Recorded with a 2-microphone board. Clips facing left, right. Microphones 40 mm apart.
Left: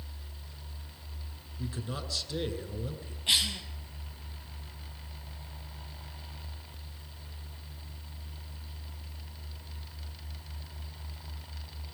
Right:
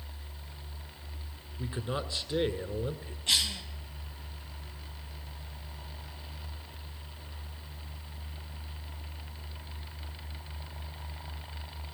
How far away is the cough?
About 4.5 m.